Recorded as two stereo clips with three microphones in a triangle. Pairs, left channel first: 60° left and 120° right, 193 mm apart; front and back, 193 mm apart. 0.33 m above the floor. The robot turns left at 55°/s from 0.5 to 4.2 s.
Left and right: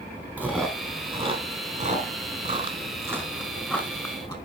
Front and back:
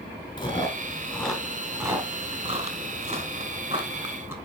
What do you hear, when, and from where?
0.4 s chewing: 45° right, 1.7 m; by 4.3 s 115° left, 1.7 m